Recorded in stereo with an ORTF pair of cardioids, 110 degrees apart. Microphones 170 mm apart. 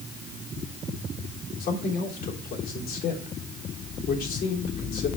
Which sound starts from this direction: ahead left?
A man speaking, at 1.6 s.